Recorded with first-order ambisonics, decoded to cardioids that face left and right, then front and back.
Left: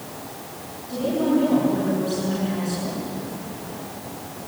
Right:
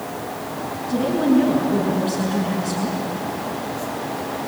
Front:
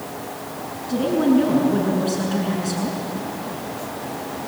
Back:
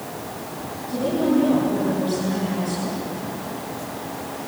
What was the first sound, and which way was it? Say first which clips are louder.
A woman speaking: right 3 dB, front 2 dB; 15° right.